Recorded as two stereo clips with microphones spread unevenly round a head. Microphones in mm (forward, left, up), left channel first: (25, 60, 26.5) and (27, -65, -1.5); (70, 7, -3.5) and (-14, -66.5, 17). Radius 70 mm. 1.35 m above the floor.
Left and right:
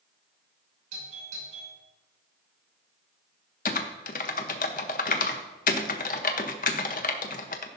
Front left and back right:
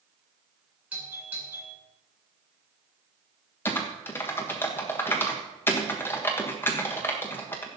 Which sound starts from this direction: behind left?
Typing on a keyboard, at 3.6 s.